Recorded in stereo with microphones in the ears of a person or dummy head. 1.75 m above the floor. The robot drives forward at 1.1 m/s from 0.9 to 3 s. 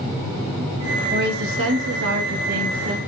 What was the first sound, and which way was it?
A woman speaking, 55° right (ahead or behind).